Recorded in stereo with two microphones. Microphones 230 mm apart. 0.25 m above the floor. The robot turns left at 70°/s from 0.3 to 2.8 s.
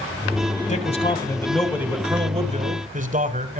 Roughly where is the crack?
No crack in this recording.